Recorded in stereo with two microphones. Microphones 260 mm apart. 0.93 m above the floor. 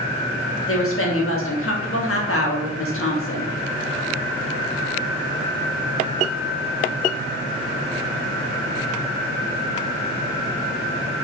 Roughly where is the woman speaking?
Left.